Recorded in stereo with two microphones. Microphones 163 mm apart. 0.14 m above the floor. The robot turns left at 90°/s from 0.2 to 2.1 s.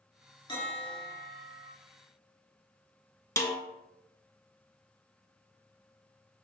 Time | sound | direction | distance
0.5 | a bell | 45° left | 2.0 m
3.4 | a snare drum | 20° left (ahead or behind) | 0.6 m